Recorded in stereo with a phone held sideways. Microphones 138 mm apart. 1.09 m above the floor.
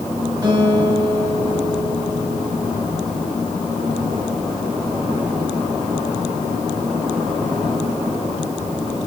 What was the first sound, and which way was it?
A guitar, 30° right (ahead or behind).